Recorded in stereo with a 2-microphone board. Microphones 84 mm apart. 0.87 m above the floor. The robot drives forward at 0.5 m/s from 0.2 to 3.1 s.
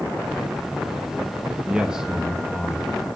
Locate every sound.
1.7 s a man speaking: 10° right (ahead or behind), 0.8 m